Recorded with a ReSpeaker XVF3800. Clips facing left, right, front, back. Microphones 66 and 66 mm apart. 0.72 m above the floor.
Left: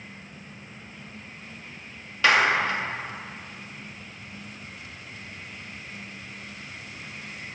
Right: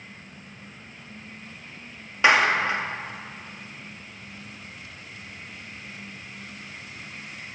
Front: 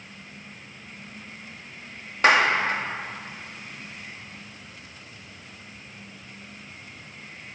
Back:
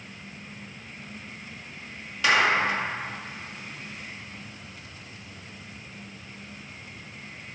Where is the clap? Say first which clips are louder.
Right 1 dB, front 2 dB; 25° right, 1.2 m.